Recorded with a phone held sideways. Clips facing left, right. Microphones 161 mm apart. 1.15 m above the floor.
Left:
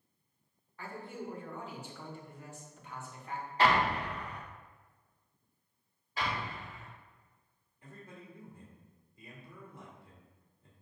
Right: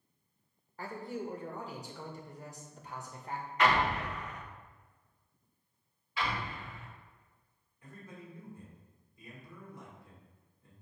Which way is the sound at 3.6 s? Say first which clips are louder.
Left 1 dB; 35° left (ahead or behind).